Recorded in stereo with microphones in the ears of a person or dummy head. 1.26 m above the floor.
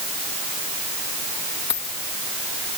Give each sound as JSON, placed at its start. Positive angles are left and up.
{"t": 1.7, "sound": "a dropped coin", "side_deg": 15}